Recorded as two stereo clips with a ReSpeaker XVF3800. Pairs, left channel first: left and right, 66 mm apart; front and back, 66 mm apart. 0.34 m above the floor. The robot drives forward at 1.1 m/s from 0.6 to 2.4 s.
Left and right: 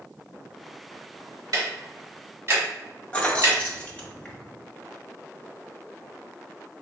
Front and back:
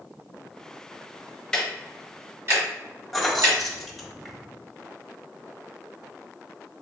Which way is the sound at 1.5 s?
75° right.